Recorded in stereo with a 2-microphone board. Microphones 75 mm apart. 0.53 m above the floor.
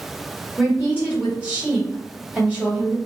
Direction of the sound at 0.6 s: 20° right (ahead or behind).